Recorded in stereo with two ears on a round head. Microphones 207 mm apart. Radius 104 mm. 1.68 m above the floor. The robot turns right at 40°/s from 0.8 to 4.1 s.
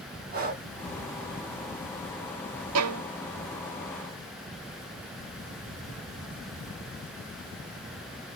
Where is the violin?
70° right (ahead or behind), 0.6 m.